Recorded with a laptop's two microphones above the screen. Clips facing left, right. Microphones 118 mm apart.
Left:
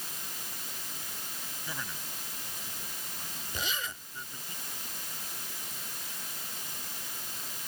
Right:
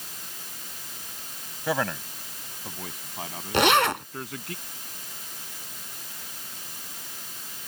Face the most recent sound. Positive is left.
turn(degrees=-85)